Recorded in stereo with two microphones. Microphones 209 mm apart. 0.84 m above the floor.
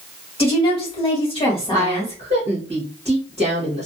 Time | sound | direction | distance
0.4 | a woman speaking | 25° left (ahead or behind) | 1.6 m
1.7 | a woman speaking | 30° right (ahead or behind) | 1.0 m